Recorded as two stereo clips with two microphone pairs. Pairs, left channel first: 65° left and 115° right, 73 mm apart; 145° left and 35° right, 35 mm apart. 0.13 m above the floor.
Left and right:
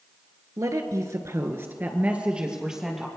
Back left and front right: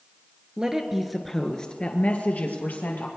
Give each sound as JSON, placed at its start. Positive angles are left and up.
{"t": 0.6, "sound": "a woman speaking", "azimuth_deg": -100, "distance_m": 1.8}